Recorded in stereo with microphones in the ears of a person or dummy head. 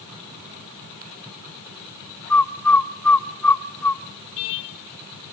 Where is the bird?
10° left (ahead or behind), 0.5 m.